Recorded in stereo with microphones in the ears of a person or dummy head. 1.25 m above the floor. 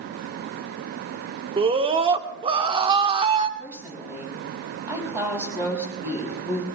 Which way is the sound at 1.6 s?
25° right (ahead or behind).